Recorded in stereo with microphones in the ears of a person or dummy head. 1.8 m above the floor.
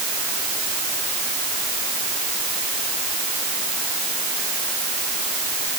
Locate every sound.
Only background noise.